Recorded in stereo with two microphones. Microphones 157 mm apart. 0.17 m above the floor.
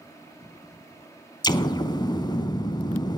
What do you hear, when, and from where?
1.4 s an explosion: 25° left (ahead or behind), 0.6 m